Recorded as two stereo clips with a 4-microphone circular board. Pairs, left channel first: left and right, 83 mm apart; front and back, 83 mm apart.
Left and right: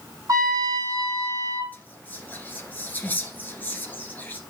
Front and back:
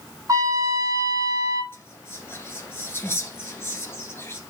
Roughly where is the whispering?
Ahead left.